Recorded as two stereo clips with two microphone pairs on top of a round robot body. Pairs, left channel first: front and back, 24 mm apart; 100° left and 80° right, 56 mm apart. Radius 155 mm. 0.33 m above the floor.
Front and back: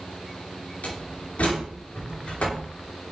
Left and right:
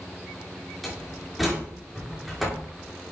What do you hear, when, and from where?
0.8 s a door slam: 10° left, 5.5 m